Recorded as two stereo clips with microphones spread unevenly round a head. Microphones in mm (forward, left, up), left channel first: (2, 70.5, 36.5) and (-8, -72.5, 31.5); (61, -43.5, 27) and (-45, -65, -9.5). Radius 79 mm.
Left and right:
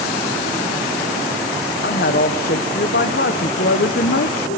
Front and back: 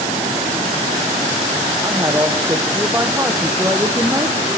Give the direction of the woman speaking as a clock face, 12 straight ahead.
8 o'clock.